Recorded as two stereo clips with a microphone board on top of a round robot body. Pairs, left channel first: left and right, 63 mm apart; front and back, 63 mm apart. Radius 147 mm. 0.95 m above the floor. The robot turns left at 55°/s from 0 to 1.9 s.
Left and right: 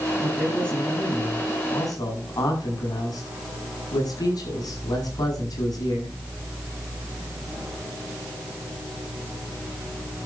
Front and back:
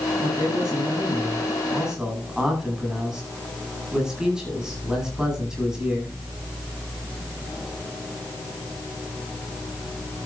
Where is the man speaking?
165° right, 8.5 m; by 6.1 s 100° left, 8.5 m.